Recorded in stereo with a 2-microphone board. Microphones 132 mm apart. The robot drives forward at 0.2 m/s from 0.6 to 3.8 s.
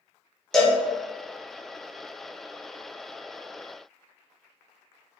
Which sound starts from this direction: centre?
A cowbell, at 0.5 s.